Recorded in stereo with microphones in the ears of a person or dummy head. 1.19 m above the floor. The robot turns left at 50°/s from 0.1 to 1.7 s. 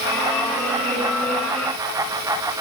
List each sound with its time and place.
Only background noise.